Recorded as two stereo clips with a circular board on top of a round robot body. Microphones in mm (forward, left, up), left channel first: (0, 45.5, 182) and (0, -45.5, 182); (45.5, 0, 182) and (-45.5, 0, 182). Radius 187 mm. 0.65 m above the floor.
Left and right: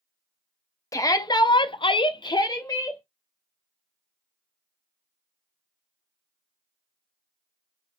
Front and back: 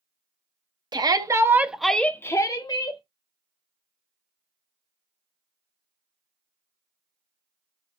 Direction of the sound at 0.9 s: 140° left.